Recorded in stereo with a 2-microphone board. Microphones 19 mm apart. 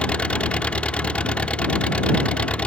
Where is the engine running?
75° left (ahead or behind).